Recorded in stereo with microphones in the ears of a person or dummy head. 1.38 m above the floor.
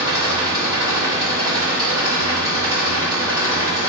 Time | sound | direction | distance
0.0 | an engine running | 10° right (ahead or behind) | 3 m